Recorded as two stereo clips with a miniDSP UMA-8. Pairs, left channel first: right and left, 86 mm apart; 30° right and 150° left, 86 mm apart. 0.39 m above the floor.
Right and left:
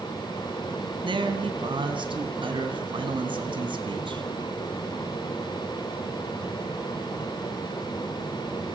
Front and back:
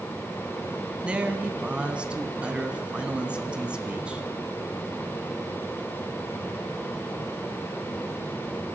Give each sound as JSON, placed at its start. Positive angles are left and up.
{"t": 1.0, "sound": "a man speaking", "azimuth_deg": 75, "distance_m": 3.0}